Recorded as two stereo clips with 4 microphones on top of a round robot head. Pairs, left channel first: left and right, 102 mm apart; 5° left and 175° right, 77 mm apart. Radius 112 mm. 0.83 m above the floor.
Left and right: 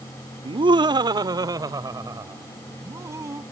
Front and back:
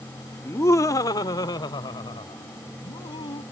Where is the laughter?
55° right; by 3.4 s 30° right.